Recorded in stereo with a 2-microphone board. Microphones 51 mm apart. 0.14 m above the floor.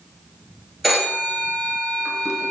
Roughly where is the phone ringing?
Centre.